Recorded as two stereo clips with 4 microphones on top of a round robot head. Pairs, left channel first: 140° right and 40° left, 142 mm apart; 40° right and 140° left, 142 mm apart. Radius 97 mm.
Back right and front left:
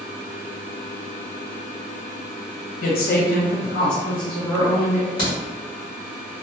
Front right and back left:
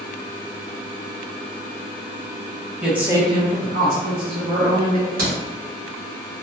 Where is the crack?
160° left, 1.8 m.